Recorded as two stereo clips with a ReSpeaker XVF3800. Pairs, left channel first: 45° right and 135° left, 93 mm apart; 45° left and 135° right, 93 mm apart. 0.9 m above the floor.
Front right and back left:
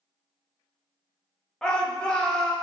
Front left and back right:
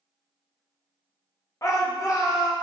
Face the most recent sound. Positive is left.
turn(degrees=30)